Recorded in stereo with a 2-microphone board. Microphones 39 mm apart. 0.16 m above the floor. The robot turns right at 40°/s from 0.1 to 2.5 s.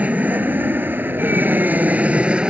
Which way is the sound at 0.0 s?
130° right.